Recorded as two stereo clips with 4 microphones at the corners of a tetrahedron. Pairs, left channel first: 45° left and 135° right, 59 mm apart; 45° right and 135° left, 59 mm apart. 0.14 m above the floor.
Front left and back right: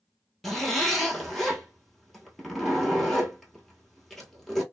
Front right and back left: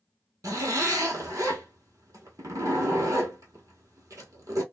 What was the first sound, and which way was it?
A zipper, 130° left.